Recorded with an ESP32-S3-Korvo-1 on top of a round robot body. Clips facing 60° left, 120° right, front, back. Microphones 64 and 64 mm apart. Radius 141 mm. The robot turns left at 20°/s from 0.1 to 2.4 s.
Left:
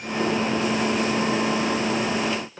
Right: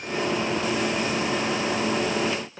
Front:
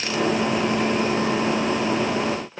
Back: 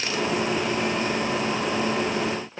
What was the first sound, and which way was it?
Only background noise.